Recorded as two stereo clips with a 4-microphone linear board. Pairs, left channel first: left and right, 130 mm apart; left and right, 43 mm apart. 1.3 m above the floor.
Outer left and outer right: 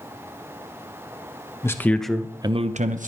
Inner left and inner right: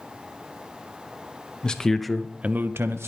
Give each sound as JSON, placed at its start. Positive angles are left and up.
{"t": 1.6, "sound": "a man speaking", "side_deg": 20, "distance_m": 1.3}